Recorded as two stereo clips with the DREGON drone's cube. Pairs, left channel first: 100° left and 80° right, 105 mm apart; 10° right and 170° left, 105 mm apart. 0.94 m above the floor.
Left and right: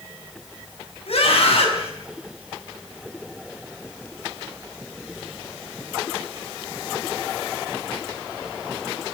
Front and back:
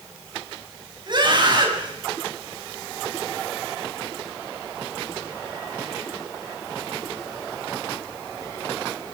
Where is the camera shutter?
No camera shutter in this recording.